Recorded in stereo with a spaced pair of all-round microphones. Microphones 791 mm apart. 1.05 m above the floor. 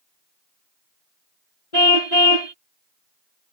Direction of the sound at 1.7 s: 50° left (ahead or behind).